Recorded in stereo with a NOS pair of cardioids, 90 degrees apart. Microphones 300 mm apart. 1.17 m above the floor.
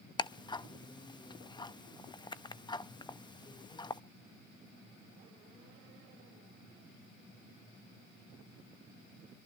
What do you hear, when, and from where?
0.2 s ticking: 15° left, 0.8 m